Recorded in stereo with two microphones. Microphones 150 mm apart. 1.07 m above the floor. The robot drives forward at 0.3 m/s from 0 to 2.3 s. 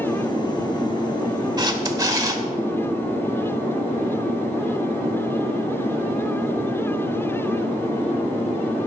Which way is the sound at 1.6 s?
25° right (ahead or behind).